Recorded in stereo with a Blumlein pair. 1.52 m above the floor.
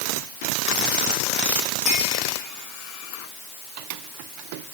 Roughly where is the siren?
I don't hear a siren.